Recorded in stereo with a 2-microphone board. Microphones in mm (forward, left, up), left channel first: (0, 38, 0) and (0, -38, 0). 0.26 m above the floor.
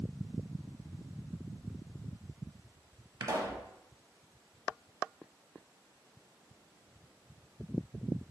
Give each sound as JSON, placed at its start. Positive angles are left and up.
{"t": 3.2, "sound": "a pop", "side_deg": -40, "distance_m": 0.5}